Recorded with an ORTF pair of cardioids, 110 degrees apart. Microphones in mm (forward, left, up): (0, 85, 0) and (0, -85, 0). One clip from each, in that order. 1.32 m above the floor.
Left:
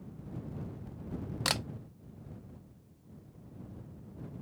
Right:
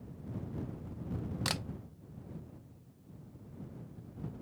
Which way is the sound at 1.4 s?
20° left.